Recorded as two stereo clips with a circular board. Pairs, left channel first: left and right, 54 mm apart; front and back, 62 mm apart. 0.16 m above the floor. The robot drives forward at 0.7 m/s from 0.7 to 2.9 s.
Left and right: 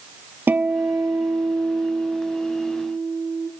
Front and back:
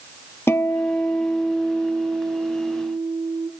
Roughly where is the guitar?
Ahead right.